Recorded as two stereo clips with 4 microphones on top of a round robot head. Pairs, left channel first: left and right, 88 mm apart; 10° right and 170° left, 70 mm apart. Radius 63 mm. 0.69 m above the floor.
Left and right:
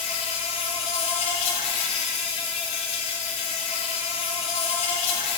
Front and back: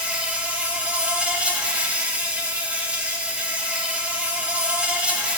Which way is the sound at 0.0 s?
95° left.